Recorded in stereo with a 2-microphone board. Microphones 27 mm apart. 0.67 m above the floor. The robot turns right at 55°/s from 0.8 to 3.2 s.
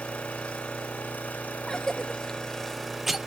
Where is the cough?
25° left (ahead or behind), 0.5 m; by 3.2 s 5° right (ahead or behind), 0.5 m.